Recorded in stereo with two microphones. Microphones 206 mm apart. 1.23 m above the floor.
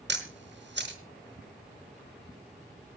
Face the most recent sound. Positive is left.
turn(degrees=-60)  # may be behind; listen again after turning